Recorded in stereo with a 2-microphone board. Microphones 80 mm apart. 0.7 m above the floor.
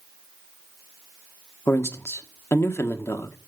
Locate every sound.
1.7 s a man speaking: 35° left (ahead or behind), 1.4 m